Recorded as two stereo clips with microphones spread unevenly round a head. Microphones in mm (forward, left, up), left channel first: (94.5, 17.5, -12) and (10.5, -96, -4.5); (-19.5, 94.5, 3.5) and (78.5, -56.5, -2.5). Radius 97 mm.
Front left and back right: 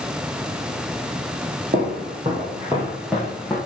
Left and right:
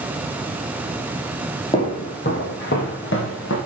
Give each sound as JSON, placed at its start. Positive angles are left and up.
{"t": 1.7, "sound": "footsteps", "azimuth_deg": -170, "distance_m": 2.0}